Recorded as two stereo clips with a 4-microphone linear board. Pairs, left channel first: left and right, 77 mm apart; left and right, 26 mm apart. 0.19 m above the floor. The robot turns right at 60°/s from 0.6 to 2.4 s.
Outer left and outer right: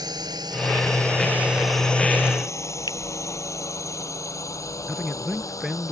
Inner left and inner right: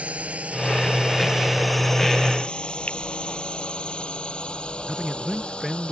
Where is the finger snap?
65° left (ahead or behind).